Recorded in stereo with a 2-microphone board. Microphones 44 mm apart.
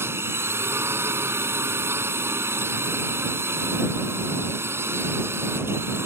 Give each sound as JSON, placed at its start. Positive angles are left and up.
{"t": 0.0, "sound": "a drone", "side_deg": -70}